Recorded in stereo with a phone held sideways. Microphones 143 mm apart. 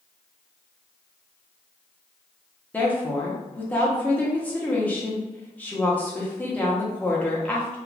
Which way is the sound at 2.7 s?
10° left (ahead or behind).